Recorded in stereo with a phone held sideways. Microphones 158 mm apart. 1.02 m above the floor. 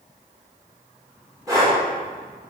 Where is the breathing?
20° right (ahead or behind), 3.5 m.